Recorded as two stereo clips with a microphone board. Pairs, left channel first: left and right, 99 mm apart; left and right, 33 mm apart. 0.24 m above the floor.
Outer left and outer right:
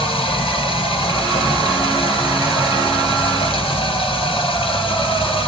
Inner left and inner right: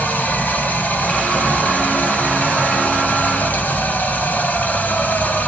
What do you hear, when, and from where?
0.0 s running water: 70° left (ahead or behind), 2 m